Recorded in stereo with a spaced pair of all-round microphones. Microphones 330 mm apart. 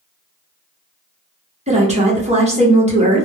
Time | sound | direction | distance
1.7 | a woman speaking | 20° right (ahead or behind) | 0.8 m